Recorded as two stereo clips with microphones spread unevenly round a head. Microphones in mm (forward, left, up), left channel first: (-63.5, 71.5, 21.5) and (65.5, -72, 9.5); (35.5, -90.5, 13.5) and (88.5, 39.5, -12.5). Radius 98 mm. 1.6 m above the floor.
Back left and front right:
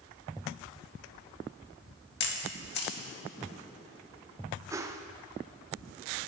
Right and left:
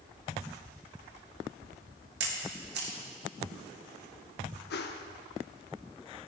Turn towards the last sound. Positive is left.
turn(degrees=-125)